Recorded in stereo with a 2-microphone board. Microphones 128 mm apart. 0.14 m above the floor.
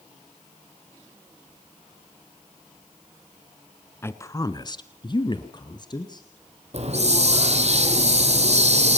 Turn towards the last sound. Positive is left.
turn(degrees=-55)  # may be behind; listen again after turning